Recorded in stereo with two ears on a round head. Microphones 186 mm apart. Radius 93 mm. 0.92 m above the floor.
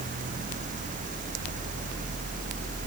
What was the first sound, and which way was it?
Only background noise.